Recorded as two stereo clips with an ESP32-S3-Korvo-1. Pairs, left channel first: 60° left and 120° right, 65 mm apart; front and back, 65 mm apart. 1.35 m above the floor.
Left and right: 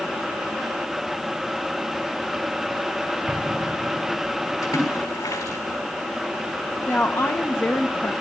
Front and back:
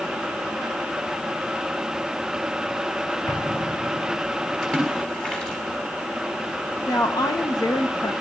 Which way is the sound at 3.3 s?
50° right.